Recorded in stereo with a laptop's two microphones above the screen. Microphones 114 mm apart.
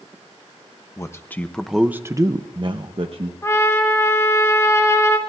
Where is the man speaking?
25° left (ahead or behind), 0.8 m; by 3.3 s 50° right (ahead or behind), 1.0 m.